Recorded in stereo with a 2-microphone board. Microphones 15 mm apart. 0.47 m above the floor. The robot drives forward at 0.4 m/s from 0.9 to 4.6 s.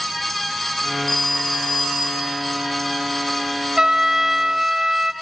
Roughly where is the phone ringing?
Left.